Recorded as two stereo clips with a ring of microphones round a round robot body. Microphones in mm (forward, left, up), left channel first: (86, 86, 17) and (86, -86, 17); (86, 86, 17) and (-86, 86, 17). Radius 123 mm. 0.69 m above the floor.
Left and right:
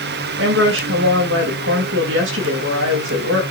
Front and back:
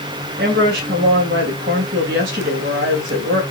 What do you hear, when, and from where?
0.4 s a woman speaking: 125° right, 3 m